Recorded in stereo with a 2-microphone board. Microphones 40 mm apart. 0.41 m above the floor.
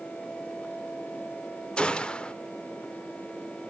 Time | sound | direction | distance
1.8 | a gunshot | 25° left (ahead or behind) | 0.6 m